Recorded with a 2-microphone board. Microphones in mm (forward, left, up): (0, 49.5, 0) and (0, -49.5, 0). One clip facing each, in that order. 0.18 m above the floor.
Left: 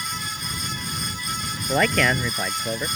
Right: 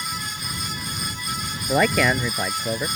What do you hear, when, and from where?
1.7 s a man speaking: 5° right (ahead or behind)